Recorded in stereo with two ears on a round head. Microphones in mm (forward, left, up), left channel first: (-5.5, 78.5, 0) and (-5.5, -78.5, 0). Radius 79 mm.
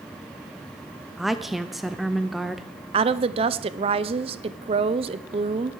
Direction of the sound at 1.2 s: Centre (ahead or behind).